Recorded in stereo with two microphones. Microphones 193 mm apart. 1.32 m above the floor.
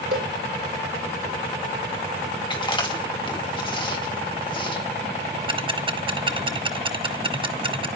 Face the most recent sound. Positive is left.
turn(degrees=-25)  # may be behind; listen again after turning